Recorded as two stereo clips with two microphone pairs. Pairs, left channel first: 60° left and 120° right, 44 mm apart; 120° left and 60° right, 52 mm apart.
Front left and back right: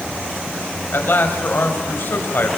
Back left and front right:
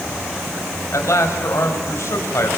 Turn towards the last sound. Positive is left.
turn(degrees=100)